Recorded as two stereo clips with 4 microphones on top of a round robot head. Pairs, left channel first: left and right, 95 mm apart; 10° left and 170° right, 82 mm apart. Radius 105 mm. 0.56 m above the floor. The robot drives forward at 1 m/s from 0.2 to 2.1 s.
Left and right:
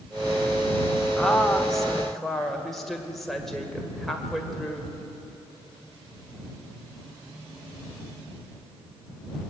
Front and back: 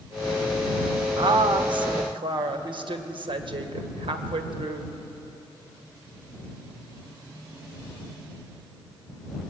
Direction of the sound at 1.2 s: 175° left.